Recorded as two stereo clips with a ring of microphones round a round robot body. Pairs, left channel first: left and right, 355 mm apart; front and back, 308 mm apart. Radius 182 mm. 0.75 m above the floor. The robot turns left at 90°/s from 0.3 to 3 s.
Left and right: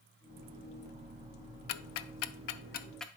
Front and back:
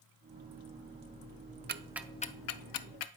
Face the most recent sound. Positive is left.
turn(degrees=0)